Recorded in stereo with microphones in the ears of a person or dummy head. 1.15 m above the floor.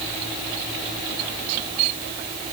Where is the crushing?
I don't hear crushing.